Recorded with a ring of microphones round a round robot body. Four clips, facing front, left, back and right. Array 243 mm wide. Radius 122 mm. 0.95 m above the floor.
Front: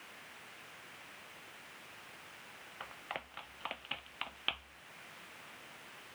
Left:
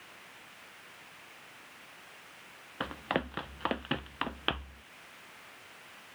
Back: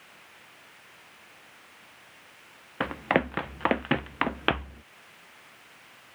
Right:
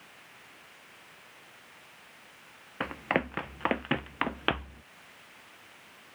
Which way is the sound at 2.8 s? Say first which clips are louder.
Right 3 dB, back 20 dB; 170° right.